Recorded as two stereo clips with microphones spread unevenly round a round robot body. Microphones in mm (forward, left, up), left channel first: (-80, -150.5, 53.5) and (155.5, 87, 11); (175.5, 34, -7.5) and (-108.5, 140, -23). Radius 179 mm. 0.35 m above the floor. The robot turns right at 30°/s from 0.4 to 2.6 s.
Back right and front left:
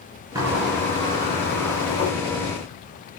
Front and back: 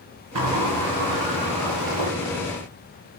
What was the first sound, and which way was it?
A sliding door, 125° left.